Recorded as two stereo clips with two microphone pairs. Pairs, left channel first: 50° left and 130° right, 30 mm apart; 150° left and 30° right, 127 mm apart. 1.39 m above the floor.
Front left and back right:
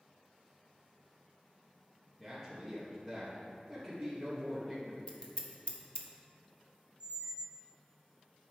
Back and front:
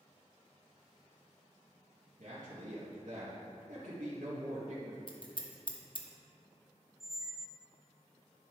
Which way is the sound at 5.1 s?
100° left.